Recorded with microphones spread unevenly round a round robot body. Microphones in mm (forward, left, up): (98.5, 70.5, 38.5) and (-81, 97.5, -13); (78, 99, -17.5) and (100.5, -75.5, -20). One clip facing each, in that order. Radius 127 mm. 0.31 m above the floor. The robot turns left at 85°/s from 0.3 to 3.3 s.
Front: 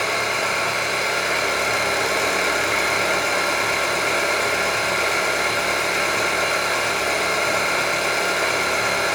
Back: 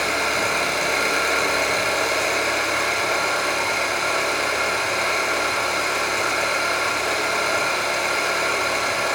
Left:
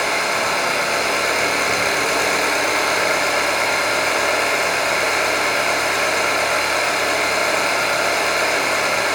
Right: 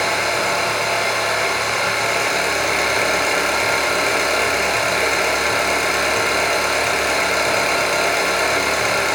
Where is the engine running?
150° right, 2.5 m; by 9.2 s 45° right, 2.5 m.